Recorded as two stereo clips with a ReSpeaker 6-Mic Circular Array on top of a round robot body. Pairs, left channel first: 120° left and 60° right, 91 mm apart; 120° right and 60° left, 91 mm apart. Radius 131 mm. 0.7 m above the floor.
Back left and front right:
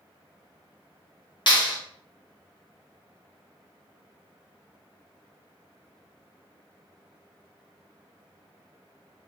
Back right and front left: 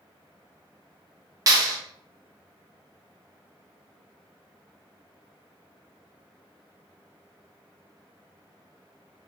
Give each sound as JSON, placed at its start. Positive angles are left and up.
{"t": 1.5, "sound": "a clap", "azimuth_deg": 105, "distance_m": 1.2}